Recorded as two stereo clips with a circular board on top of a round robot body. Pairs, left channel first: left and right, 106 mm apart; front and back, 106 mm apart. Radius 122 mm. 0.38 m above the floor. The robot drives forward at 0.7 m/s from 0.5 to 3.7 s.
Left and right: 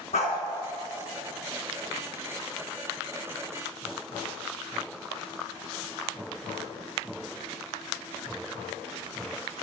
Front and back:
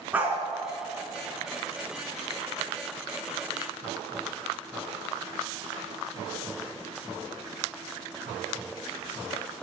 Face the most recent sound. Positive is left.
turn(degrees=145)